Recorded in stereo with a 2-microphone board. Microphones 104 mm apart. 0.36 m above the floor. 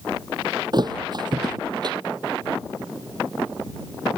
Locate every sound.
0.7 s a thud: 40° right (ahead or behind)